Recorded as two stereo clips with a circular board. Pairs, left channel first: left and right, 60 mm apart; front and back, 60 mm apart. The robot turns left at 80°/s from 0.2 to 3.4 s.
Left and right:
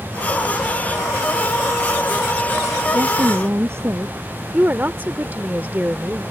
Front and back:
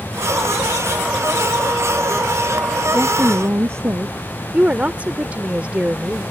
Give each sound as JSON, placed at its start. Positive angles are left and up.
{"t": 2.9, "sound": "a woman speaking", "azimuth_deg": -100}
{"t": 4.5, "sound": "a woman speaking", "azimuth_deg": -130}